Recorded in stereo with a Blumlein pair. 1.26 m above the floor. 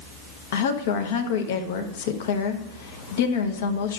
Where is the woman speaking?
55° left, 0.9 m.